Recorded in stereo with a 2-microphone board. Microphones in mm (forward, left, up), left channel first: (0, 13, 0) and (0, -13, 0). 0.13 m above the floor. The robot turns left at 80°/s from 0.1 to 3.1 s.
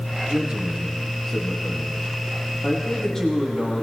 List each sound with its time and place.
0.3 s a man speaking: 110° right, 4 m; by 3.9 s 25° left, 4 m